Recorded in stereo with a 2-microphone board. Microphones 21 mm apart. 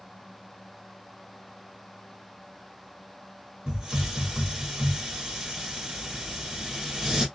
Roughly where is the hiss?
Right.